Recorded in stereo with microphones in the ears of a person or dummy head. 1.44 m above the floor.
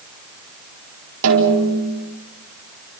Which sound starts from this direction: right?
A snare drum, at 1.2 s.